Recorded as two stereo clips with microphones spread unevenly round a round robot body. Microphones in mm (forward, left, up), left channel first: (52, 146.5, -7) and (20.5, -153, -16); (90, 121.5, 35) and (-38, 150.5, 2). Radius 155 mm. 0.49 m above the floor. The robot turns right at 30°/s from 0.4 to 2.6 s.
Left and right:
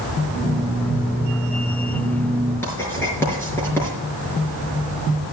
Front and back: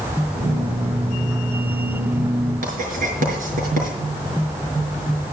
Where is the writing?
165° left, 5 m.